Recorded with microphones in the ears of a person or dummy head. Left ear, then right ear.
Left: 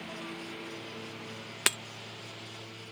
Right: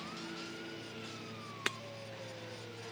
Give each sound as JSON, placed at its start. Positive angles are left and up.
{"t": 0.0, "sound": "a lawn mower", "side_deg": 45}
{"t": 1.7, "sound": "breaking glass", "side_deg": 20}